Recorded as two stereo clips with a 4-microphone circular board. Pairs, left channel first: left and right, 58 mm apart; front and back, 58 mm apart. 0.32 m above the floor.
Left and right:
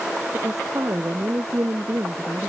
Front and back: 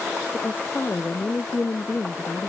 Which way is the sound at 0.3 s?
60° right.